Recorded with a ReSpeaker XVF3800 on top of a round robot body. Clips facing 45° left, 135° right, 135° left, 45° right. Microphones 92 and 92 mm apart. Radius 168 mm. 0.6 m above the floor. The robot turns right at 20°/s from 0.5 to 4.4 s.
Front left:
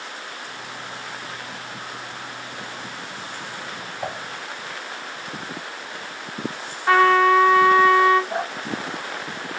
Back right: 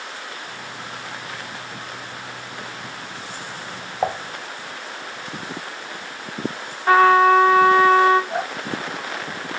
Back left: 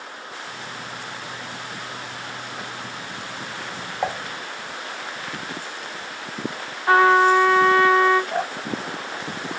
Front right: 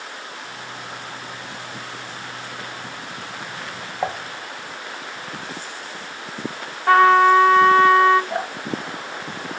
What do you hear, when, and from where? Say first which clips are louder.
4.0 s dishes clattering: back right 8 dB, front right 1 dB; 125° right, 0.8 m
6.9 s a trumpet: back right 2 dB, front right 2 dB; 80° right, 3 m
8.3 s dripping: back right 1 dB, even; 50° right, 3 m